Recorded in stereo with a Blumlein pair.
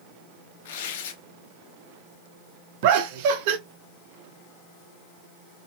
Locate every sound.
0.7 s tearing paper: 55° left, 0.7 m
2.8 s laughter: 50° right, 0.8 m